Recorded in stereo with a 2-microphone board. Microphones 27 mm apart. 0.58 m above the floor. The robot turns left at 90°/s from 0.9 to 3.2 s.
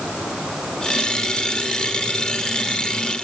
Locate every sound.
Only background noise.